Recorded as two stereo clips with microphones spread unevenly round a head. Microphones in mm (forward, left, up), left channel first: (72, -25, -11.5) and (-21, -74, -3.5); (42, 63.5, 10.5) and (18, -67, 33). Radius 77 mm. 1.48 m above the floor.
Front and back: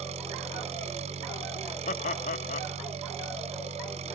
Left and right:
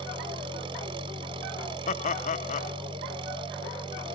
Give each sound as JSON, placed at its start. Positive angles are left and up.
{"t": 0.0, "sound": "an engine running", "azimuth_deg": -155}
{"t": 1.9, "sound": "laughter", "azimuth_deg": 45}